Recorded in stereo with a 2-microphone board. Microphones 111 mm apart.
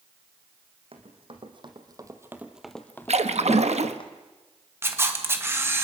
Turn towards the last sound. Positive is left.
turn(degrees=-25)  # may be behind; listen again after turning